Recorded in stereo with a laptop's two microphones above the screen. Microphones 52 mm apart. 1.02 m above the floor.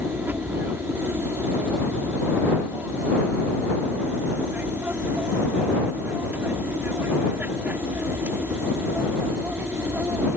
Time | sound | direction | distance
0.0 | an aircraft | 35° right (ahead or behind) | ?